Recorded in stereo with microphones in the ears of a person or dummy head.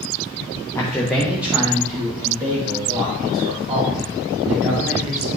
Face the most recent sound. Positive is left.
turn(degrees=-35)  # may be behind; listen again after turning